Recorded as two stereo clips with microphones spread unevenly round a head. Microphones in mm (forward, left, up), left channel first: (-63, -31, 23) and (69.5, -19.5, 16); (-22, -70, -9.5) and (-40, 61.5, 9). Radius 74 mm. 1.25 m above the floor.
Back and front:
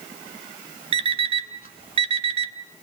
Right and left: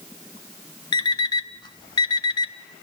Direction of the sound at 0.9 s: 25° right.